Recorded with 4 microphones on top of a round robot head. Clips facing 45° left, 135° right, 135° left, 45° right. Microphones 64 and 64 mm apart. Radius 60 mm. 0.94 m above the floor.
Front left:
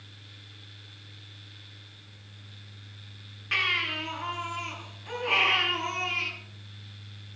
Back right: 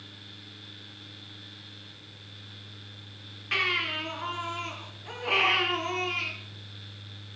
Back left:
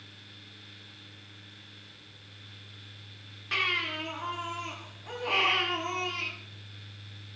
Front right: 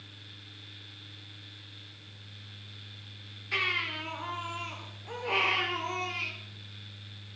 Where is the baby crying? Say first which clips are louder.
Even, back left 1 dB; 135° left, 8 m.